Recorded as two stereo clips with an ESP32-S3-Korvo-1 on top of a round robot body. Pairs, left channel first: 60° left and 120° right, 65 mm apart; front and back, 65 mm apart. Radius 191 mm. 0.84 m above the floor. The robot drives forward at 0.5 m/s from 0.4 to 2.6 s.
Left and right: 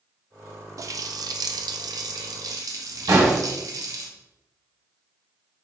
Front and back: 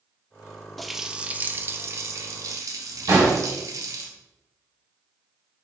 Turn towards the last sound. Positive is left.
turn(degrees=-145)